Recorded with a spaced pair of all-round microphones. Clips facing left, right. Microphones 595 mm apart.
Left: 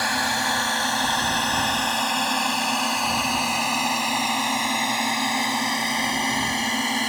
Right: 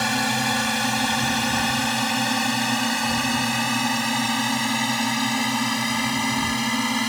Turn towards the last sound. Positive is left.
turn(degrees=-30)  # may be behind; listen again after turning